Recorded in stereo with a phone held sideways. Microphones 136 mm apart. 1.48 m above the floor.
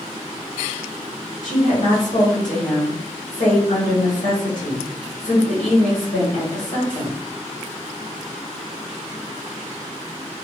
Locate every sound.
1.4 s a woman speaking: 80° left, 1.4 m